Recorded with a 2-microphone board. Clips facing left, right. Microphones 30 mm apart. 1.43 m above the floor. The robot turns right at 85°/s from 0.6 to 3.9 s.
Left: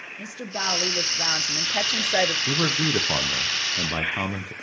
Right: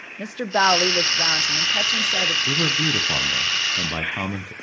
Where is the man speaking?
45° left, 0.7 m; by 4.5 s 165° left, 0.7 m.